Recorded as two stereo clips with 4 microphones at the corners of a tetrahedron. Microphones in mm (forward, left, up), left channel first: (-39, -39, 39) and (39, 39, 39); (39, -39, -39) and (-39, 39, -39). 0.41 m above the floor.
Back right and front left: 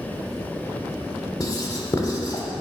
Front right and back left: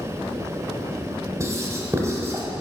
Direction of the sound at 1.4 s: 175° right.